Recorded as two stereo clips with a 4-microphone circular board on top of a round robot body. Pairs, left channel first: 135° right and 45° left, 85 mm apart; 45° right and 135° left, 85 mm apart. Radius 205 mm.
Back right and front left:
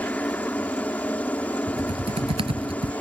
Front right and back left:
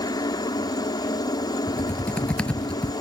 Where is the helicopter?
65° right.